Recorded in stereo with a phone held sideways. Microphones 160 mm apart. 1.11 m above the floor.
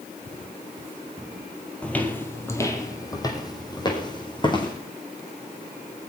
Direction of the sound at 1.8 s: 5° left (ahead or behind).